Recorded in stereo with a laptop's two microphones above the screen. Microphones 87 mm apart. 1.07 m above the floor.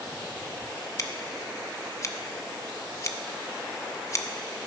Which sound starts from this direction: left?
Scissors, at 1.0 s.